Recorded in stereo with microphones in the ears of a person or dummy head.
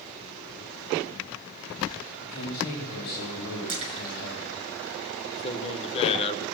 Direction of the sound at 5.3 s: 30° left (ahead or behind).